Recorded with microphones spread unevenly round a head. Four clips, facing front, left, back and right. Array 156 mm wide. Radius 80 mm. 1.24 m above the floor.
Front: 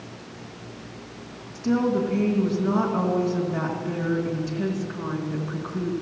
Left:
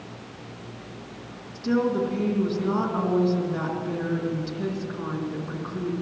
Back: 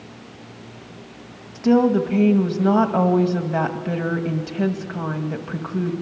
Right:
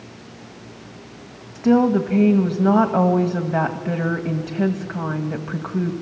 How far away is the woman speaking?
About 1.6 m.